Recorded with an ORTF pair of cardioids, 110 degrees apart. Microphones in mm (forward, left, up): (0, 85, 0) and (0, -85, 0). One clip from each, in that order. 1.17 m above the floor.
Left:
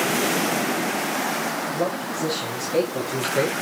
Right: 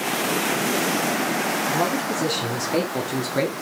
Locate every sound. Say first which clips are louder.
1.7 s a man speaking: right 3 dB; 60° right, 3.5 m; by 3.5 s 15° right, 3 m